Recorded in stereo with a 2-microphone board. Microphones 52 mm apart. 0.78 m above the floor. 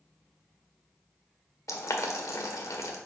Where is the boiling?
85° left, 1.2 m.